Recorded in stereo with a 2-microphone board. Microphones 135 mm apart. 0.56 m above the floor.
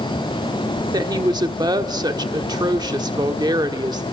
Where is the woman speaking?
30° right (ahead or behind), 1.2 m.